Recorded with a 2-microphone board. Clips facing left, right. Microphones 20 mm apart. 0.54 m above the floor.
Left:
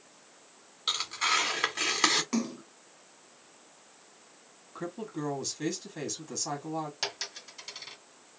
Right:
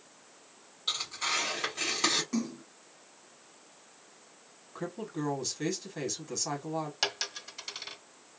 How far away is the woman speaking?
About 1.0 m.